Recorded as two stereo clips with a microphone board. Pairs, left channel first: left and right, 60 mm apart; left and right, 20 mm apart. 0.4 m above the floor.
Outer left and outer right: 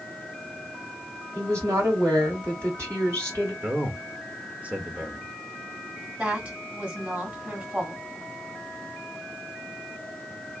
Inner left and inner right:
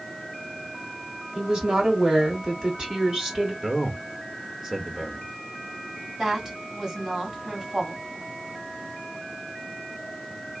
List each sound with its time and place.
1.4 s a woman speaking: 55° right (ahead or behind), 2.5 m
3.6 s a man speaking: 20° right (ahead or behind), 1.0 m
6.2 s a woman speaking: 25° right (ahead or behind), 1.7 m